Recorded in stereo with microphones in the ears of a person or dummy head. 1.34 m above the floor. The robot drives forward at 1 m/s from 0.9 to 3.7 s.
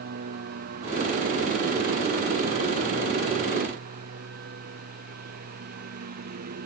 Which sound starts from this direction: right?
A lawn mower, at 0.0 s.